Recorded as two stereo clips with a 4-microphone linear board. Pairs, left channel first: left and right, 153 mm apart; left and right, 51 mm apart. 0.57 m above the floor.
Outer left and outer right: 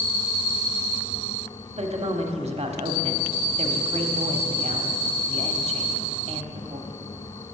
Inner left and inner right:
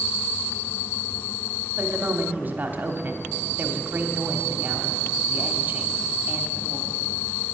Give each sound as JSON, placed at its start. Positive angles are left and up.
{"t": 1.8, "sound": "a woman speaking", "side_deg": -45, "distance_m": 1.1}